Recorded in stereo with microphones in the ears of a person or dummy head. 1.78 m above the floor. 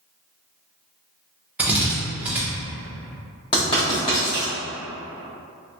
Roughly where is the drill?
Centre.